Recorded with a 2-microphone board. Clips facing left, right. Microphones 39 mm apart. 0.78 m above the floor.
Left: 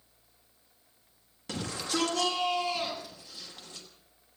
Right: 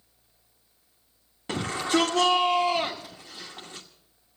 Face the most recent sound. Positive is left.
turn(degrees=-25)  # may be behind; listen again after turning